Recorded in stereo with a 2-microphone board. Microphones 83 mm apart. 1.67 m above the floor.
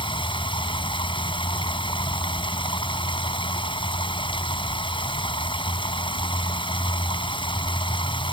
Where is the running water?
80° left.